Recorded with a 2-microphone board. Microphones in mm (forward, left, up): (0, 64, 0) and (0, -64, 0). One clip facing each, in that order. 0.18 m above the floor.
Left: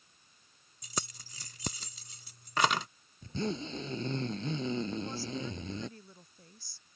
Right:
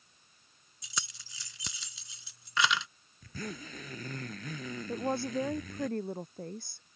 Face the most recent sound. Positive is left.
turn(degrees=-65)  # may be behind; listen again after turning